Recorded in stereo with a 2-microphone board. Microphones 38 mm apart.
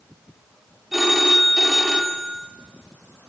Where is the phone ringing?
5° right (ahead or behind), 2.5 m.